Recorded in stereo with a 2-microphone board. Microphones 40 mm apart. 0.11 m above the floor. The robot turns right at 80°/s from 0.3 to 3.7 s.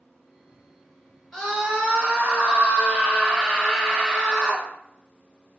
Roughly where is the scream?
Behind.